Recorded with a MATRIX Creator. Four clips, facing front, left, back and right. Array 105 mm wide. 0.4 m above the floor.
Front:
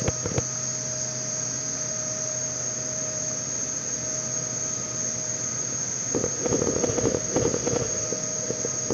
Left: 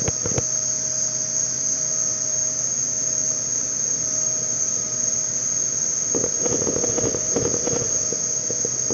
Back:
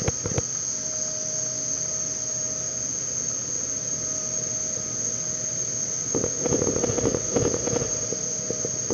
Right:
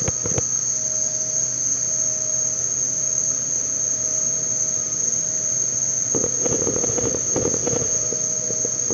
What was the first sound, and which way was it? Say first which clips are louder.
An insect: left 1 dB, front 1 dB; 90° left.